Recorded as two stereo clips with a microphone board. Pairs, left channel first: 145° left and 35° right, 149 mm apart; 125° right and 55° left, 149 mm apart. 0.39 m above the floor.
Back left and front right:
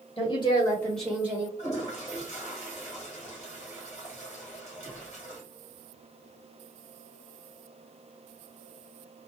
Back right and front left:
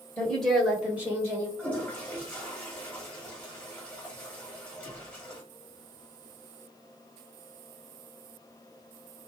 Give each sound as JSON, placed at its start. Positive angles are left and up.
{"t": 0.2, "sound": "a woman speaking", "azimuth_deg": 155, "distance_m": 1.7}
{"t": 1.6, "sound": "a toilet flushing", "azimuth_deg": 155, "distance_m": 1.7}